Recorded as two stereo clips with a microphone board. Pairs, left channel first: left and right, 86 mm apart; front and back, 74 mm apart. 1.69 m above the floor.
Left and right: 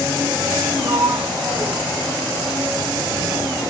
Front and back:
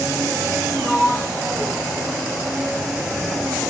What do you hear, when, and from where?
0.8 s a sliding door: 80° right, 1.7 m